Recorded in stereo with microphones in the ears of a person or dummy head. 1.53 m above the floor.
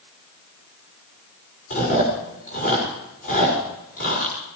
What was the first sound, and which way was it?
Chewing, 45° left (ahead or behind).